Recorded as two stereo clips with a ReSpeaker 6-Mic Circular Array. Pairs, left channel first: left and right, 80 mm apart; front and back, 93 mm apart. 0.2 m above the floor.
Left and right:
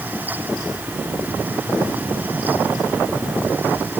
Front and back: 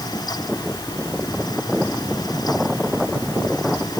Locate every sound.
Only background noise.